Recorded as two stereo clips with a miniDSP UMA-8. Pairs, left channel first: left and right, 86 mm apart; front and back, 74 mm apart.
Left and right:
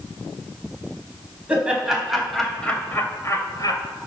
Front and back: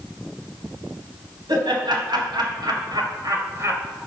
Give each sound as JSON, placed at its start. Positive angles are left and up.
{"t": 1.5, "sound": "laughter", "azimuth_deg": -165, "distance_m": 3.5}